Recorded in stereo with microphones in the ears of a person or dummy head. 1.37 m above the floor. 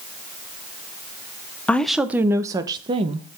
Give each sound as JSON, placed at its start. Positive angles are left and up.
{"t": 1.7, "sound": "a woman speaking", "side_deg": 5, "distance_m": 0.7}